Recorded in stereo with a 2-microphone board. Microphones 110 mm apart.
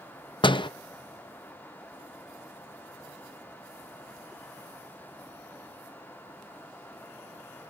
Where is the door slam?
50° left (ahead or behind), 0.6 m.